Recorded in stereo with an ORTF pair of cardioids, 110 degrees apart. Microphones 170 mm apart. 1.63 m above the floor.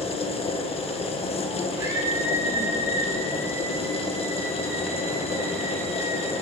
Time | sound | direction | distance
0.0 | a machine running | 35° left | 1.6 m
1.8 | a scream | 20° right | 4 m